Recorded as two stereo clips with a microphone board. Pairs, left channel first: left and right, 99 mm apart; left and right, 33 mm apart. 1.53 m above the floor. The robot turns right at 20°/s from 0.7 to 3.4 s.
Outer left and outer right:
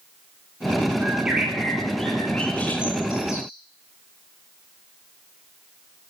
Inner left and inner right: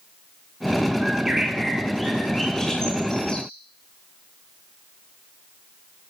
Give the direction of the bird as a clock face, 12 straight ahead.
12 o'clock.